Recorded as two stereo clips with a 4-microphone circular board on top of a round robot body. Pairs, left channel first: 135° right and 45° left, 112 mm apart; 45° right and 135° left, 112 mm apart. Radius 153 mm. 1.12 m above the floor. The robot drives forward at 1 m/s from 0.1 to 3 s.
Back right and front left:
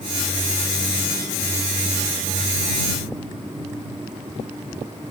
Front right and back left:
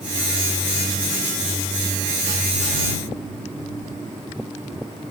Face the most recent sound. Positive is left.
No sound to turn to.